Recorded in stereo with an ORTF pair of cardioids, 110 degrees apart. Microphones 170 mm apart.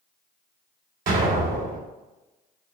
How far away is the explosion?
About 2.5 m.